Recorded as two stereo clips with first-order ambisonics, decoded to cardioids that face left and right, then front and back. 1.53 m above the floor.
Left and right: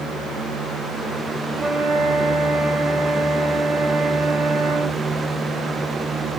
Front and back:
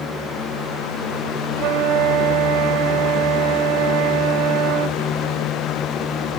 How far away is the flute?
About 0.6 m.